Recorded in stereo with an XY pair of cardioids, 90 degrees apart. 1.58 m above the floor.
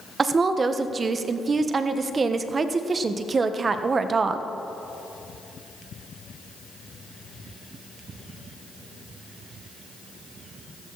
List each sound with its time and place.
0.2 s a woman speaking: 40° right, 1.3 m